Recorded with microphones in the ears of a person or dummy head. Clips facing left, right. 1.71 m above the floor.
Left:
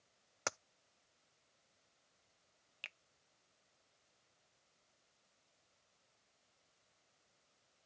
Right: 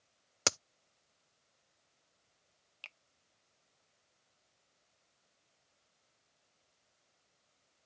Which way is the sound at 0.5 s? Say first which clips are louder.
Right 7 dB; 55° right (ahead or behind).